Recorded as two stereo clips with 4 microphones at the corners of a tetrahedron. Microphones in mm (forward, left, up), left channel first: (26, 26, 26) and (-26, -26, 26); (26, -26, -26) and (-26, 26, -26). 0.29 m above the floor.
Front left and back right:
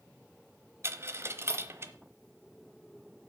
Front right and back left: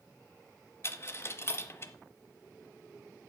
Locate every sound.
0.8 s a dropped coin: 90° right, 0.9 m